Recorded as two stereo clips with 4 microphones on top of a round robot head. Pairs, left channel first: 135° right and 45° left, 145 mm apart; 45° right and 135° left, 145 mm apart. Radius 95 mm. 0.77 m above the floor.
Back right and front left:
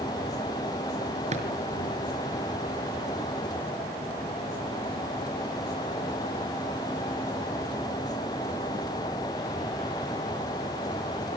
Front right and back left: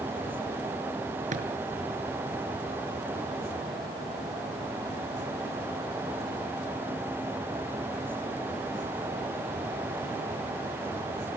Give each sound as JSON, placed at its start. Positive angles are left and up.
{"t": 1.3, "sound": "a drawer", "azimuth_deg": 95, "distance_m": 5.5}